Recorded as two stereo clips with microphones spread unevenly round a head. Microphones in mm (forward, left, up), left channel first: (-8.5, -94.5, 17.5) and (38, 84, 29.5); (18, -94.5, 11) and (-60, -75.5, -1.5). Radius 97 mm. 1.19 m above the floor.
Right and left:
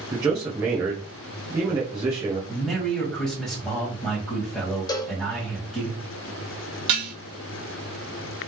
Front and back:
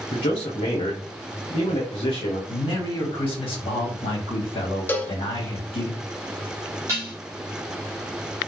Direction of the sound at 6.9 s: 90° left.